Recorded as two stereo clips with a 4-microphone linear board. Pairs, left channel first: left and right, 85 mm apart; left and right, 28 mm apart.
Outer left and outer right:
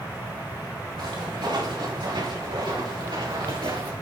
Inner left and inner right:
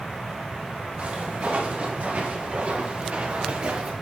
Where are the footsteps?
65° right (ahead or behind), 5.5 m; by 3.9 s 60° right (ahead or behind), 2.0 m.